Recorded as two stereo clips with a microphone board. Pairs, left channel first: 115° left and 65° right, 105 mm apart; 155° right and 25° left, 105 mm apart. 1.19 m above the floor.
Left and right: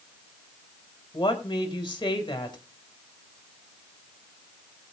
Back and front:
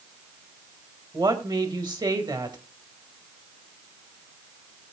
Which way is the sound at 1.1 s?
70° left.